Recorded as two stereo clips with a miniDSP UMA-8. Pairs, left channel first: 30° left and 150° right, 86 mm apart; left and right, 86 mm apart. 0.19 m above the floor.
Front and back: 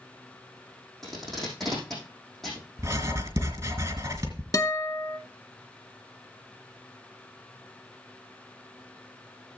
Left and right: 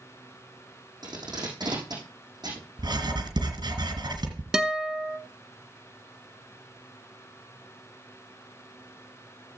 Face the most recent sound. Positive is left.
turn(degrees=-10)